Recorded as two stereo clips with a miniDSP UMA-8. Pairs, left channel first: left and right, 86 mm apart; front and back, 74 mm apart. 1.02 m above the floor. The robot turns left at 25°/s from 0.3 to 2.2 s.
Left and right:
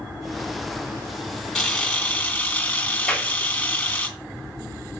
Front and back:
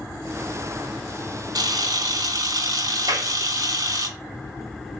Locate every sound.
1.6 s a camera shutter: 175° left, 3 m; by 4.1 s 160° left, 3 m
3.1 s a clap: 170° left, 2 m